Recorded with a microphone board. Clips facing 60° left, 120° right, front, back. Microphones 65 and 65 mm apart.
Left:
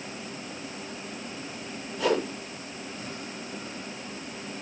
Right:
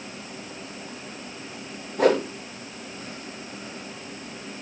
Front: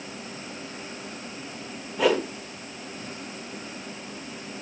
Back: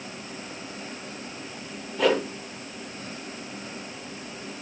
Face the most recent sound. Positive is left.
turn(degrees=-85)